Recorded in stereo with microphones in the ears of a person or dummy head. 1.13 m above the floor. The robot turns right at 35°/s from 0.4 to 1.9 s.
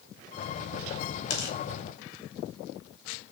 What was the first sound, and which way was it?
Tearing paper, 60° left (ahead or behind).